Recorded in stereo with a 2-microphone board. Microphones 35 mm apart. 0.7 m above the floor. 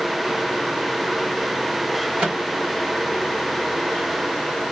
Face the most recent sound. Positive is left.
turn(degrees=-30)  # may be behind; listen again after turning